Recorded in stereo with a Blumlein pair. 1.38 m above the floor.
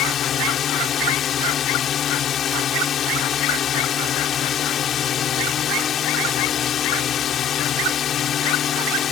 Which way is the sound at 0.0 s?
25° left.